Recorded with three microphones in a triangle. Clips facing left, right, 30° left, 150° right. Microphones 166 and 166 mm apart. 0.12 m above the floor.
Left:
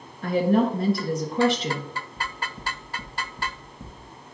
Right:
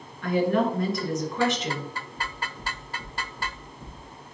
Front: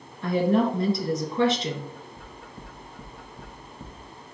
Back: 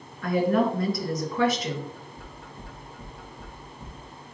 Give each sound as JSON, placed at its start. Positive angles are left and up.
{"t": 0.2, "sound": "a woman speaking", "azimuth_deg": 70, "distance_m": 1.5}
{"t": 2.2, "sound": "knocking", "azimuth_deg": 65, "distance_m": 3.5}